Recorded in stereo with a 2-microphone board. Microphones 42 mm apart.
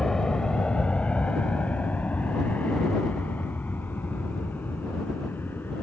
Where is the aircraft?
15° left (ahead or behind); by 5.8 s 55° left (ahead or behind).